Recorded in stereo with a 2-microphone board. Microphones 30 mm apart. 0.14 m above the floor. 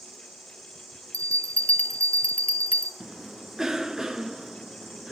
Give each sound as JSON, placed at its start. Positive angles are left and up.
{"t": 0.0, "sound": "an insect", "side_deg": -5, "distance_m": 7.5}
{"t": 1.1, "sound": "a bell", "side_deg": 50, "distance_m": 1.3}
{"t": 3.0, "sound": "a cough", "side_deg": -15, "distance_m": 1.5}